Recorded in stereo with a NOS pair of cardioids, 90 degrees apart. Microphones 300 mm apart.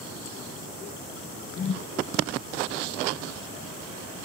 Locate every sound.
1.6 s a whoosh: 35° left, 0.7 m